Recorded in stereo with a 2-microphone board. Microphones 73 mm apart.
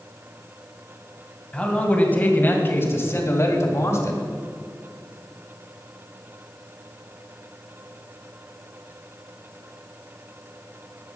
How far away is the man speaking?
About 2.0 m.